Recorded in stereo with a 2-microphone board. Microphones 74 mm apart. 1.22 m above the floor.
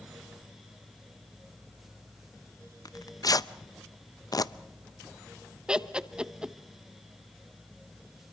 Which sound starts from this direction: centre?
Laughter, at 5.7 s.